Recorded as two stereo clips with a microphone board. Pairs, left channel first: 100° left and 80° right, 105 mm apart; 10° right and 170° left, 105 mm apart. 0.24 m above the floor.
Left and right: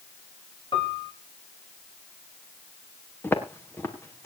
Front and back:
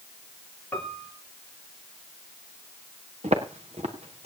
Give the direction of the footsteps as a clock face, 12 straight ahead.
6 o'clock.